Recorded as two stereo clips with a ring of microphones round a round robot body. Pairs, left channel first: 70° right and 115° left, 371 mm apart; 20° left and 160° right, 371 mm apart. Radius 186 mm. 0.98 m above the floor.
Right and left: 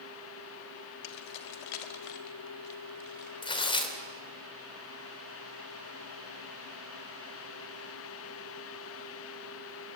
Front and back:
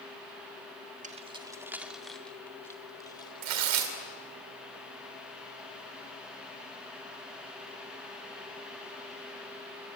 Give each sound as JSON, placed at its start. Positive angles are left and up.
{"t": 1.0, "sound": "keys jangling", "azimuth_deg": -85, "distance_m": 1.5}
{"t": 3.4, "sound": "tearing paper", "azimuth_deg": -145, "distance_m": 3.0}